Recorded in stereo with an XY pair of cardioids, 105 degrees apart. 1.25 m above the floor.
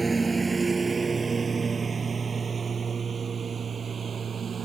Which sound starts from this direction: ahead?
A lawn mower, at 0.0 s.